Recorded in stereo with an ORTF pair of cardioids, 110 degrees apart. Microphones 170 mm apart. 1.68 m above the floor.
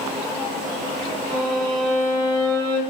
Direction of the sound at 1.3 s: 25° right.